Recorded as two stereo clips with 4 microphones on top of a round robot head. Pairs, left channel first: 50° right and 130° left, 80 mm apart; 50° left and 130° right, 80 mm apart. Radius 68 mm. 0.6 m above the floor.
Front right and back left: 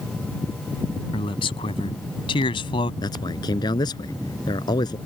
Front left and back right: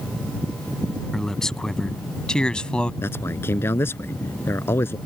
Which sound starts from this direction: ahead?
A man speaking, at 3.0 s.